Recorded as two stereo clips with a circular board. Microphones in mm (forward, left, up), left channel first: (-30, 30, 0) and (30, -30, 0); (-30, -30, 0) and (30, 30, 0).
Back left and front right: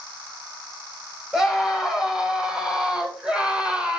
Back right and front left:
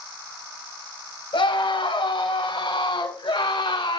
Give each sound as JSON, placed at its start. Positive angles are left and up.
{"t": 1.3, "sound": "a scream", "azimuth_deg": -130, "distance_m": 4.5}